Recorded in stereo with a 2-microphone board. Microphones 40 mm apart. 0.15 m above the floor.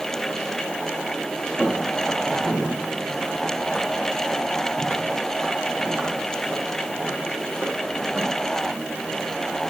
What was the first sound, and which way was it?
Footsteps, centre (ahead or behind).